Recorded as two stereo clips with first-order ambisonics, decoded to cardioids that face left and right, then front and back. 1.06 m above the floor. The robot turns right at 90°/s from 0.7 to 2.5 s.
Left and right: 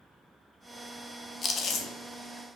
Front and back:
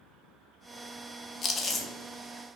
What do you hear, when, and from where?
1.4 s chewing: 45° left, 0.5 m; by 1.9 s 90° left, 0.5 m